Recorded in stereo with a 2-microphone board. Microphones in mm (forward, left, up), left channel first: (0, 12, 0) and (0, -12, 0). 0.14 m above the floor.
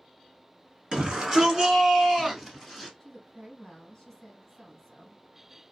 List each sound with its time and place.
0.9 s a shout: 40° right (ahead or behind), 1.4 m; by 2.9 s 15° right (ahead or behind), 1.5 m
3.0 s a woman speaking: 15° left (ahead or behind), 1.3 m